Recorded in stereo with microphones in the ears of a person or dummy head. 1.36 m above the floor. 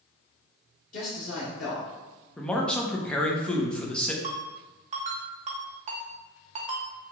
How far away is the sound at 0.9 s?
About 0.9 m.